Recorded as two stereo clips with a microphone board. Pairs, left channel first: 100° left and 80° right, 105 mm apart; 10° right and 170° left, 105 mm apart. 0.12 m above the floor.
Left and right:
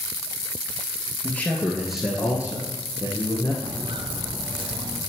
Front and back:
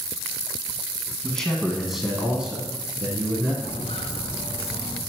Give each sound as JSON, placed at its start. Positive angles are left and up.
{"t": 1.2, "sound": "a man speaking", "azimuth_deg": 60, "distance_m": 1.3}
{"t": 3.6, "sound": "footsteps", "azimuth_deg": -25, "distance_m": 0.7}